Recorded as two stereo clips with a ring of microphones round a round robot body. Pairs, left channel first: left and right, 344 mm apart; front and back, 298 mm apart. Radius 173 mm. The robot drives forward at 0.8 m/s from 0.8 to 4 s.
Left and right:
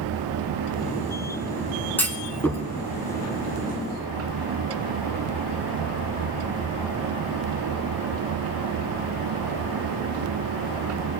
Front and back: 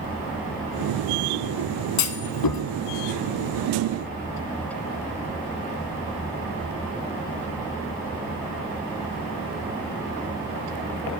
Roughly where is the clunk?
Ahead.